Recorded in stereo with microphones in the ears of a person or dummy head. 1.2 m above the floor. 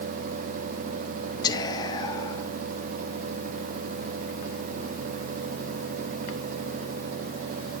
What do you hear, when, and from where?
1.4 s whispering: 15° left (ahead or behind), 1.0 m